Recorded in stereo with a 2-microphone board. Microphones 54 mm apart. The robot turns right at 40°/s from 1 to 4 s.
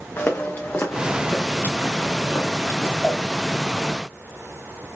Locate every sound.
0.2 s footsteps: 45° left (ahead or behind), 1.5 m; by 2.9 s 75° left (ahead or behind), 2 m
3.0 s a cowbell: 15° left (ahead or behind), 0.7 m; by 3.2 s 20° left (ahead or behind), 0.7 m